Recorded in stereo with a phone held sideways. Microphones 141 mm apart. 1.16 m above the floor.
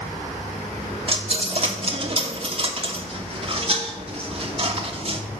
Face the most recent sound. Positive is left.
turn(degrees=-45)  # may be behind; listen again after turning